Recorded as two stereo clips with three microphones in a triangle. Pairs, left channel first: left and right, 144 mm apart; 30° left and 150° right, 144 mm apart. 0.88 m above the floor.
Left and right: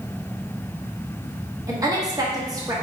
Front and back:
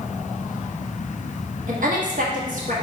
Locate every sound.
1.7 s a woman speaking: 155° right, 1.3 m